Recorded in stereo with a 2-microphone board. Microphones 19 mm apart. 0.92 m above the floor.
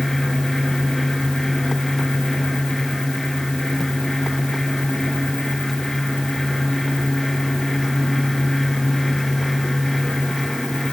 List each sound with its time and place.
Only background noise.